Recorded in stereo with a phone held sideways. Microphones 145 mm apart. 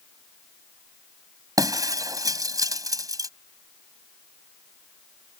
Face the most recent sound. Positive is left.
turn(degrees=-25)  # may be behind; listen again after turning